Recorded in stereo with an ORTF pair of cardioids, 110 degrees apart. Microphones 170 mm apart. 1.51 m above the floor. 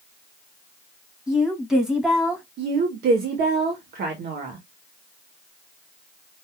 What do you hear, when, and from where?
1.3 s a woman speaking: 5° right, 2.5 m
2.6 s a woman speaking: 65° right, 1.4 m